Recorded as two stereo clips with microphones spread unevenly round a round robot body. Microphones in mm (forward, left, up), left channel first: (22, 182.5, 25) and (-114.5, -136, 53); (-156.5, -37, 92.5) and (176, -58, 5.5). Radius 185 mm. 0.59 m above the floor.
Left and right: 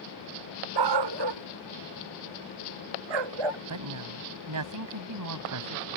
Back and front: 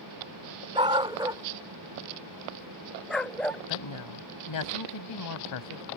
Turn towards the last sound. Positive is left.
turn(degrees=-150)